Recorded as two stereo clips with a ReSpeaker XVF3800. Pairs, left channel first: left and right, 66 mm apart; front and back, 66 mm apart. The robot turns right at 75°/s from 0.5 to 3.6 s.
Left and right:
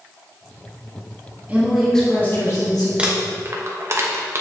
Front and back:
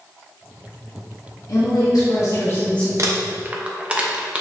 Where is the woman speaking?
25° right, 1.4 m; by 2.9 s 80° left, 1.4 m.